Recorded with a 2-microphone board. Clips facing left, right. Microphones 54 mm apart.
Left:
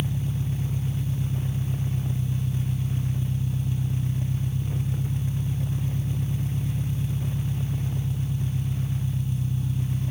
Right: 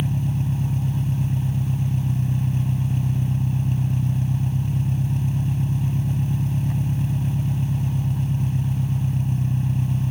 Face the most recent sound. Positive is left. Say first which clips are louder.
# right 5 dB
turn(degrees=-55)  # may be behind; listen again after turning